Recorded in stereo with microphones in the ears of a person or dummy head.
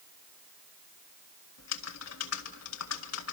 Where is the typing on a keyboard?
80° left, 1.8 m.